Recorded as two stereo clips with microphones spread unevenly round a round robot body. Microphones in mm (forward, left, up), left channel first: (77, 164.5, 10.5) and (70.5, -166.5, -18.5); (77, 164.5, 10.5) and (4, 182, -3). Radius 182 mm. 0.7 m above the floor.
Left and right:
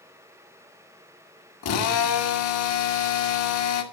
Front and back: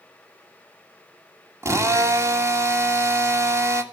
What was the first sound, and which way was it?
A drill, 135° left.